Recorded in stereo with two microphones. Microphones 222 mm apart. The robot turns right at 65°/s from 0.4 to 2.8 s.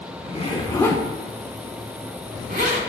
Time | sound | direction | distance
0.2 | a zipper | 25° left (ahead or behind) | 0.9 m